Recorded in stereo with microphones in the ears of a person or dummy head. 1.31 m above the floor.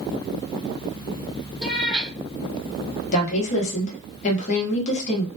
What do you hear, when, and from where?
1.6 s a cat meowing: centre (ahead or behind), 0.9 m
3.1 s a woman speaking: 45° left (ahead or behind), 1.0 m